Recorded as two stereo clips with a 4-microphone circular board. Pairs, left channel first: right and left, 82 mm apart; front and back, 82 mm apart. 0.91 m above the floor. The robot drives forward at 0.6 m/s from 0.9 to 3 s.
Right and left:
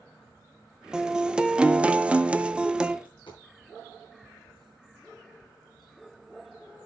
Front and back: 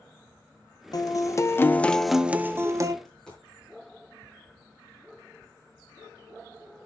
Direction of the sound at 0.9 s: 10° left.